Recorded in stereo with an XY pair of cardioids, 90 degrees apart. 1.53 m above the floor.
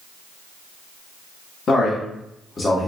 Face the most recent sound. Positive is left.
turn(degrees=15)